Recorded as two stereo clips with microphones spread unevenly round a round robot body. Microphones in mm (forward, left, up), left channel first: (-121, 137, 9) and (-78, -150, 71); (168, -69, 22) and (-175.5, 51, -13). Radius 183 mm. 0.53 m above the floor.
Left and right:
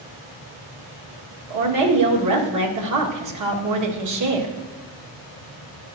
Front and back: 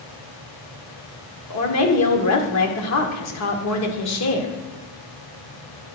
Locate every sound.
1.5 s a woman speaking: 60° right, 1.7 m